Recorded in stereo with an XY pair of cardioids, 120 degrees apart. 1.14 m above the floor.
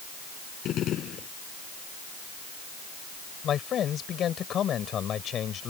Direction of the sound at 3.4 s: 50° left.